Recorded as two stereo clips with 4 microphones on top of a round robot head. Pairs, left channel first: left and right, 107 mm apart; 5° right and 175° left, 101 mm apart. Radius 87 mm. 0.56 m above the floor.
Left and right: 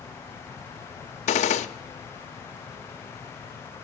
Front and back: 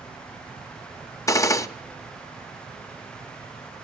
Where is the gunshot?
55° left, 0.5 m.